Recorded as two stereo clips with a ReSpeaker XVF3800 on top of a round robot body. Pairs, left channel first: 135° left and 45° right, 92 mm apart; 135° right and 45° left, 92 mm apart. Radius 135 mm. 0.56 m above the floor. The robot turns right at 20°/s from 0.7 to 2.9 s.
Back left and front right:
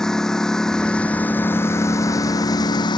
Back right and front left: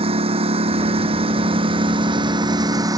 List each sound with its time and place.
0.0 s a lawn mower: 50° left; by 3.0 s 95° left